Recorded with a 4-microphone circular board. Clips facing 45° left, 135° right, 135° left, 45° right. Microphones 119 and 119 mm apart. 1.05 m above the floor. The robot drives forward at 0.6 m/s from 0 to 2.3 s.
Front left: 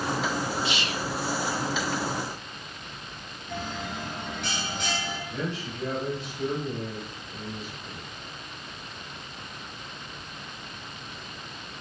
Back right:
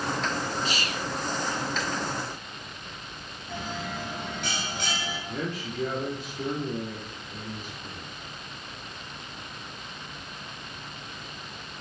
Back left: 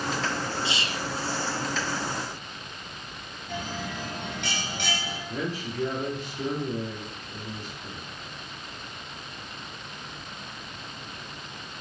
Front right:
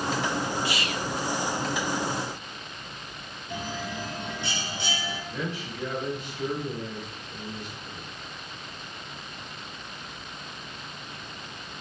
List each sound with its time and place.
0.7 s whispering: 170° right, 0.6 m; by 1.1 s 175° right, 0.8 m
3.5 s a bell: 135° left, 3 m
5.3 s a man speaking: 175° right, 2 m